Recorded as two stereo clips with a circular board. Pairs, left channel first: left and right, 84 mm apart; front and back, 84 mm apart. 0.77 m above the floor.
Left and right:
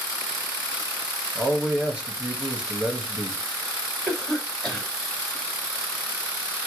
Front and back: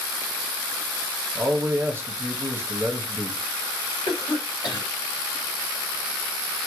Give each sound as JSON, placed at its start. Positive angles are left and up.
{"t": 1.4, "sound": "a man speaking", "azimuth_deg": -160, "distance_m": 0.9}
{"t": 4.1, "sound": "a cough", "azimuth_deg": 5, "distance_m": 1.8}